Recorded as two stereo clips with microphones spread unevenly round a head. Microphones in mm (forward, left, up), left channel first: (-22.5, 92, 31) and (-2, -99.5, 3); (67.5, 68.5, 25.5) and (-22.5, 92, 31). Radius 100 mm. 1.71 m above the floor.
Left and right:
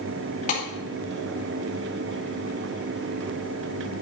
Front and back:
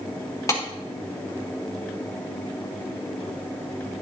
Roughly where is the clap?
Ahead left.